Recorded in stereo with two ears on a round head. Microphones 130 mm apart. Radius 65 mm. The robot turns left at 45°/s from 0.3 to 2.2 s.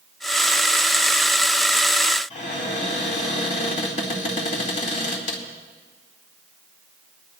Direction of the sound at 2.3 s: 50° left (ahead or behind).